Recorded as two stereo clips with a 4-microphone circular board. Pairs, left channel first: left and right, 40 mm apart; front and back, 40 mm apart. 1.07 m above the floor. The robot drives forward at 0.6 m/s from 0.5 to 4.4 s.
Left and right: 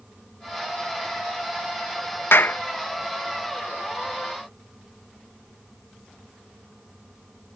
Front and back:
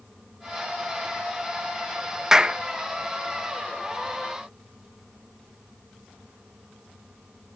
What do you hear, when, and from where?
2.3 s a clap: 105° left; by 2.6 s 120° left